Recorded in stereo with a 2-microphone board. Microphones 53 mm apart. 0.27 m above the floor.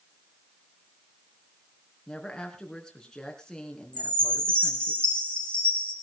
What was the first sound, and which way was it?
A woman speaking, 15° left (ahead or behind).